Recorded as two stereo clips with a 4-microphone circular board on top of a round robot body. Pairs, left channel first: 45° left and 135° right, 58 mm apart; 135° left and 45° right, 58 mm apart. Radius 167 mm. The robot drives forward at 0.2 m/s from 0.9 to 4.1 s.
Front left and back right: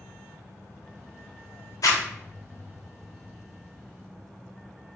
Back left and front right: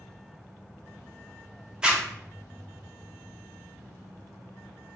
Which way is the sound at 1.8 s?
30° left.